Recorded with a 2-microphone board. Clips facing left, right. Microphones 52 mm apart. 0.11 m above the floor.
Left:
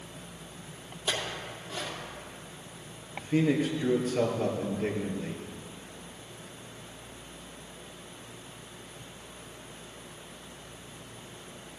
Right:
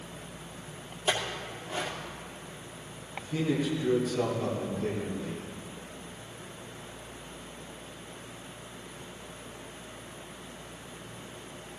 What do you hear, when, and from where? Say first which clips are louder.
1.1 s a clink: right 2 dB; 25° right (ahead or behind), 2 m
3.2 s a man speaking: left 4 dB; 45° left (ahead or behind), 2.5 m